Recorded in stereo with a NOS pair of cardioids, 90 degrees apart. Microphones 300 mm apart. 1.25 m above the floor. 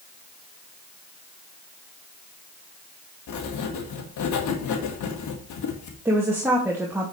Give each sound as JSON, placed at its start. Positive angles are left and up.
{"t": 3.3, "sound": "writing", "azimuth_deg": 70, "distance_m": 1.9}
{"t": 6.0, "sound": "a woman speaking", "azimuth_deg": -10, "distance_m": 2.5}